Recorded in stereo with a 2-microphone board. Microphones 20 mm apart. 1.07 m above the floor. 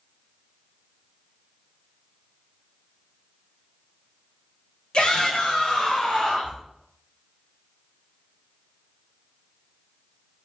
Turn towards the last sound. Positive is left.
turn(degrees=60)  # may be behind; listen again after turning